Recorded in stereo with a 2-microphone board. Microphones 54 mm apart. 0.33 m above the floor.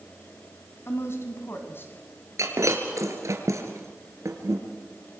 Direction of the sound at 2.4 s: 75° right (ahead or behind).